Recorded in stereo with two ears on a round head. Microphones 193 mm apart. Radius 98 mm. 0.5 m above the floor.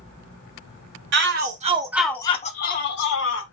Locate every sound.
1.1 s a shout: 55° right (ahead or behind), 1.1 m; by 3.4 s 60° left (ahead or behind), 1.5 m